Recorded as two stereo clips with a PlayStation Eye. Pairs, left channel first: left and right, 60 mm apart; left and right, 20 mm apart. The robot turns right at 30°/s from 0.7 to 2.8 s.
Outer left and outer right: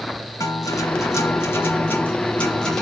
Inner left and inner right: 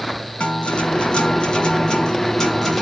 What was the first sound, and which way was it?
A guitar, 105° left.